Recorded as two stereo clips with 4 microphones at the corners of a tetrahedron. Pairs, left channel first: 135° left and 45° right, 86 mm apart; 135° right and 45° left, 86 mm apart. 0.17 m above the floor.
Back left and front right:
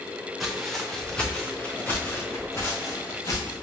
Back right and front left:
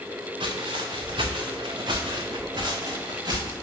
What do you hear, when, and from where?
0.4 s footsteps: 45° left, 1.8 m; by 3.5 s 85° left, 2.5 m